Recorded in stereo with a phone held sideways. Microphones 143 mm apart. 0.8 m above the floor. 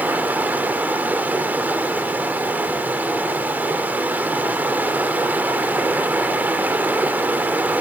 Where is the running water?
10° right (ahead or behind), 1.9 m.